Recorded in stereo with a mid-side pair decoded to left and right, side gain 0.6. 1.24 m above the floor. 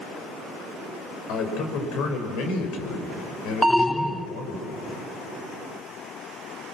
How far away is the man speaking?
About 5 m.